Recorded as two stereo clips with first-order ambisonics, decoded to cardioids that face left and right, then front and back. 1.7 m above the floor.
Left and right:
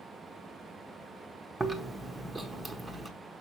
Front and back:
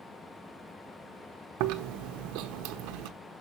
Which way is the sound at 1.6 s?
170° right.